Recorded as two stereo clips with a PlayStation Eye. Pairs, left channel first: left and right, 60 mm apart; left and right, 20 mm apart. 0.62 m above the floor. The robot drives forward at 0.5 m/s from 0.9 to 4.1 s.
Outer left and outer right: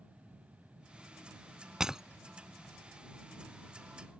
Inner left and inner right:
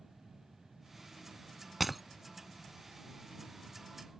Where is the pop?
No pop in this recording.